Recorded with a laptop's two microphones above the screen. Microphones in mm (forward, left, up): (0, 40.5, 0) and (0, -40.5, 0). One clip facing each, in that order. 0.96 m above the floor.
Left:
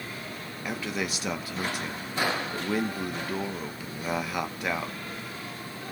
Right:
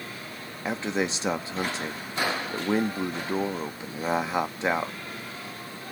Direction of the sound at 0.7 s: 25° right (ahead or behind).